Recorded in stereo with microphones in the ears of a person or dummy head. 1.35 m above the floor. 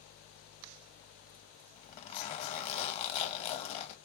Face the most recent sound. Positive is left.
turn(degrees=40)  # may be behind; listen again after turning